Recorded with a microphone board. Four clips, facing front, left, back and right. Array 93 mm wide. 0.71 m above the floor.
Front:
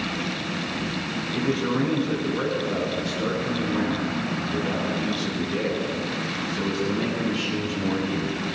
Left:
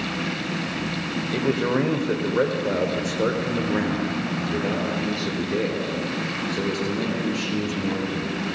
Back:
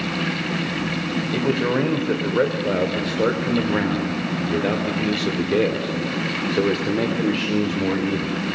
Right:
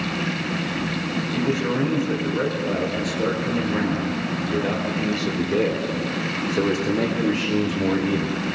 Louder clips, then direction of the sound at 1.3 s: Left 2 dB, back 3 dB; 140° left.